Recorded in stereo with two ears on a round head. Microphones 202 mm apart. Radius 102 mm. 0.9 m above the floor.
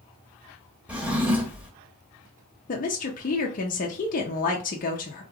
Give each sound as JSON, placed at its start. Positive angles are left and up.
{"t": 0.9, "sound": "a drawer", "side_deg": -5, "distance_m": 0.7}
{"t": 2.7, "sound": "a woman speaking", "side_deg": 35, "distance_m": 0.6}